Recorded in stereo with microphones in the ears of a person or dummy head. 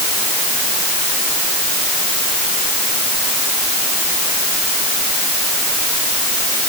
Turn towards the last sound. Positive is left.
No sound to turn to.